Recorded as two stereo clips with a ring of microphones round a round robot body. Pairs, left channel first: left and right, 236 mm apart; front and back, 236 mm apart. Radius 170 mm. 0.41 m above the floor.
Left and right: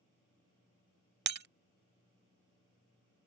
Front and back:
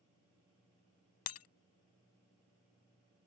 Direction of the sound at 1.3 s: 45° right.